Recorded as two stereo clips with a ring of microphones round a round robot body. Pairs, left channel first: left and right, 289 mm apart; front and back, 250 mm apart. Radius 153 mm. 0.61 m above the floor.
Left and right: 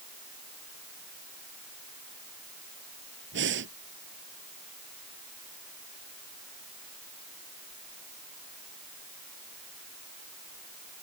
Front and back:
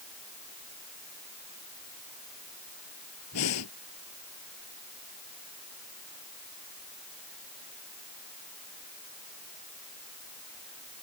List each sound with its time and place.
3.3 s breathing: 40° right